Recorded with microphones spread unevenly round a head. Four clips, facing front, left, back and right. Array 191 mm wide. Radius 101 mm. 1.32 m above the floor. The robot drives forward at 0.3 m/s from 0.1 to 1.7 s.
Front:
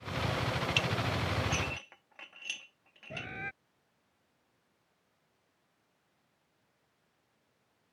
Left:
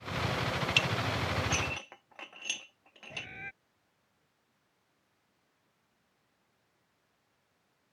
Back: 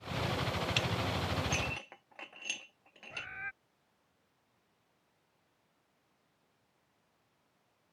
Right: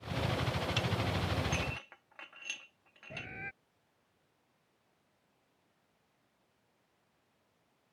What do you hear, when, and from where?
0.8 s dishes clattering: 115° left; by 3.3 s 125° left
3.1 s a bird: 15° right